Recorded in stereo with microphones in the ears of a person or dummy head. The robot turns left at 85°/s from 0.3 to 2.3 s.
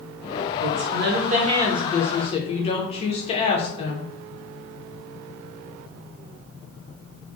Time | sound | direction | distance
0.6 | a woman speaking | 70° right | 0.7 m